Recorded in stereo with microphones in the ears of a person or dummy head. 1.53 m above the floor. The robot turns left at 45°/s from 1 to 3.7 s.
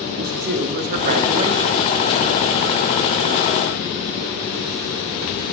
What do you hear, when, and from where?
0.2 s a man speaking: 130° right, 0.6 m; by 1.9 s 170° right, 0.6 m